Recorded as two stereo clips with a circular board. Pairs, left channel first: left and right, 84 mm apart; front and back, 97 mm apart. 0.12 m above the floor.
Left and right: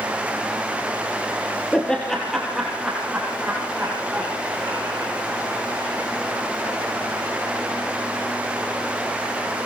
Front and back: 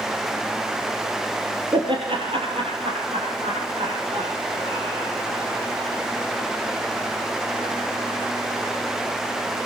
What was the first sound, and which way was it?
Laughter, 165° left.